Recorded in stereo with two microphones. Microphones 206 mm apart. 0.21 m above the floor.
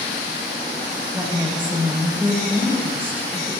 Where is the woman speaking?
10° right (ahead or behind), 6 m.